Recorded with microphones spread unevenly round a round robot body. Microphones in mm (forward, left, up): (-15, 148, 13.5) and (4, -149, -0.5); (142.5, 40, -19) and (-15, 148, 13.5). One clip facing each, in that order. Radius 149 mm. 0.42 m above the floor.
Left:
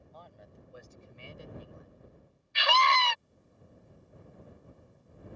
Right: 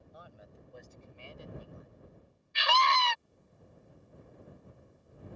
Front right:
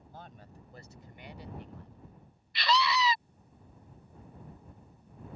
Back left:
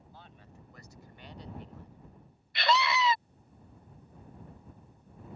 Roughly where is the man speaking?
Ahead.